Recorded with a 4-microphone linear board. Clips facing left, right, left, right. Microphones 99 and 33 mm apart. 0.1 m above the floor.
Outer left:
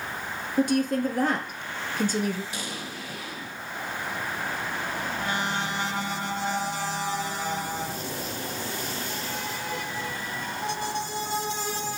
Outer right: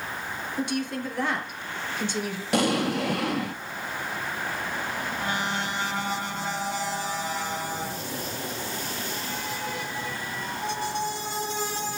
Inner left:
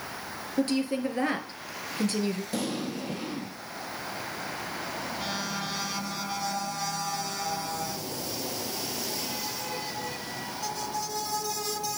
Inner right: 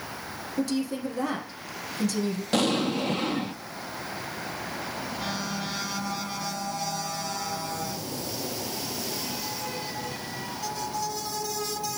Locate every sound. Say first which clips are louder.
0.6 s a woman speaking: outer left 7 dB, inner left 1 dB; 45° left (ahead or behind), 2.0 m
2.5 s an explosion: outer right 13 dB, inner right 7 dB; 70° right (ahead or behind), 0.7 m